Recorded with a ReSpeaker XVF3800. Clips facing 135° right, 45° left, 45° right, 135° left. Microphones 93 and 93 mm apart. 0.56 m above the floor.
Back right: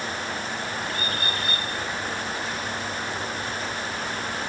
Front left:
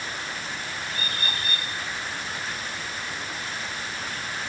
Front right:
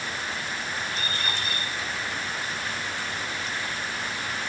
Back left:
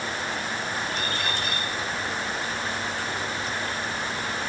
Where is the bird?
105° left, 8.5 m.